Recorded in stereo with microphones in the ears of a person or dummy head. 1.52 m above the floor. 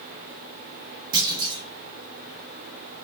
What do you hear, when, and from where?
1.1 s a clunk: 25° right (ahead or behind), 1.0 m